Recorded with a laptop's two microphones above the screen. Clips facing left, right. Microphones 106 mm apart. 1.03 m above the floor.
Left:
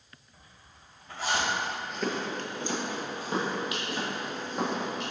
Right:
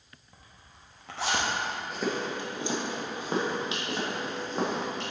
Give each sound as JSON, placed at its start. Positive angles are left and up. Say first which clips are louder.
{"t": 0.3, "sound": "a zipper", "louder": "right 3 dB", "side_deg": -70, "distance_m": 1.1}
{"t": 1.9, "sound": "footsteps", "louder": "right 1 dB", "side_deg": -5, "distance_m": 1.0}